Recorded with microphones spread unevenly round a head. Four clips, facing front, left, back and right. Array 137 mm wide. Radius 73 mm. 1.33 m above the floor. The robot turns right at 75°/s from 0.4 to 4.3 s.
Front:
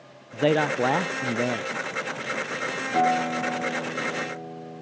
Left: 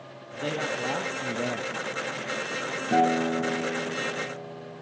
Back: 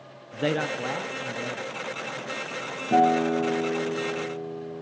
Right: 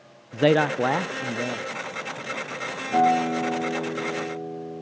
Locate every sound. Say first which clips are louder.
0.3 s a man speaking: right 11 dB, front 5 dB; 75° right, 0.6 m; by 1.7 s 20° left, 0.6 m
2.9 s a guitar: right 3 dB, back 3 dB; 140° left, 6 m; by 4.8 s 115° right, 6 m